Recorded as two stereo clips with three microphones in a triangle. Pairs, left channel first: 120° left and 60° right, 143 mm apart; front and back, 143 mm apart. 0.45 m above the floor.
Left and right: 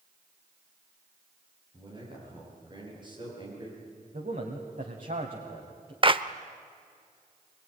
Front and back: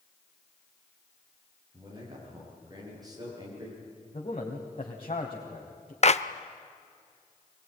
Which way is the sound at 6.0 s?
20° right.